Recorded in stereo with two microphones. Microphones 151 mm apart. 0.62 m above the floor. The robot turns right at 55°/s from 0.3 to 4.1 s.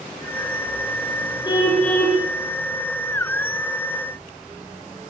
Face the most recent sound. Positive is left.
turn(degrees=-65)